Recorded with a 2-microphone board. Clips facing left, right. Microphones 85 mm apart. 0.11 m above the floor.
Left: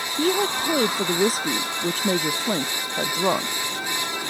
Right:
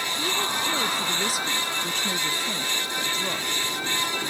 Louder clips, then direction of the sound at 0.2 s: Left 8 dB; 45° left (ahead or behind).